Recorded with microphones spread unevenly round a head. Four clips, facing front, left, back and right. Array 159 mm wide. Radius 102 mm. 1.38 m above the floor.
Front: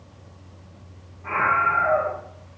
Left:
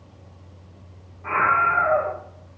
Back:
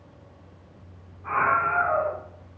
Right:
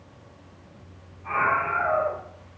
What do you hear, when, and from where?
1.2 s a scream: 85° left, 4.5 m